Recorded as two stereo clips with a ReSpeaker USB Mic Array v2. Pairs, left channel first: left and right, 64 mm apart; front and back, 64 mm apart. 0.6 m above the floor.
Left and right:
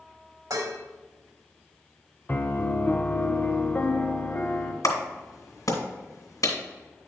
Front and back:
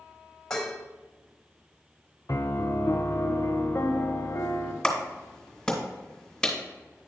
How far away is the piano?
About 0.7 m.